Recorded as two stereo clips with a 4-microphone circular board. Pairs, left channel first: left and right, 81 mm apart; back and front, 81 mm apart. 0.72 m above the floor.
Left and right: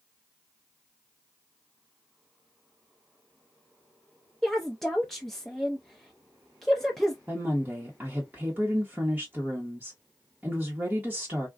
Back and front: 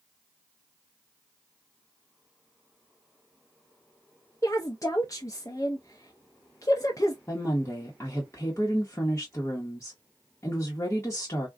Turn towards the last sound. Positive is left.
turn(degrees=-145)